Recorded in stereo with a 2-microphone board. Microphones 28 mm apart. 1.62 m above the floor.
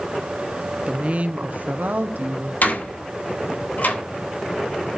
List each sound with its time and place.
0.9 s a woman speaking: 35° right (ahead or behind), 1.3 m; by 2.5 s 65° right (ahead or behind), 1.9 m
2.6 s a door slam: 70° left (ahead or behind), 8 m